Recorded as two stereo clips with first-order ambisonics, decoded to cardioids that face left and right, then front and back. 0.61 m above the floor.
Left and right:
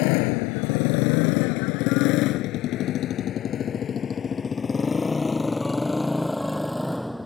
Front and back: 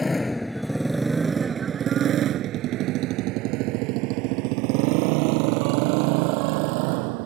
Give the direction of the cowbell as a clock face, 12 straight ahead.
No cowbell in this recording.